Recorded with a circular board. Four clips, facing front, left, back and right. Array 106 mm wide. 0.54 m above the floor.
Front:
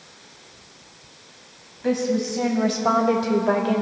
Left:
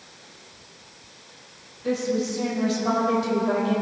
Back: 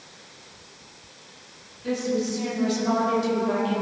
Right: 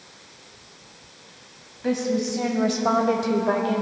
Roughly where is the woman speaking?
Ahead right.